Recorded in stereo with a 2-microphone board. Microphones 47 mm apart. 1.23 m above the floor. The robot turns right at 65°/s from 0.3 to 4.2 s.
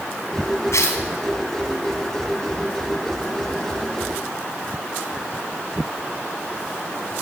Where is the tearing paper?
75° left (ahead or behind), 3.5 m; by 1.0 s 70° left (ahead or behind), 3.5 m.